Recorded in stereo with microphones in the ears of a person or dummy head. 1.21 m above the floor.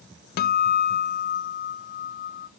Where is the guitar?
45° left (ahead or behind), 0.6 m.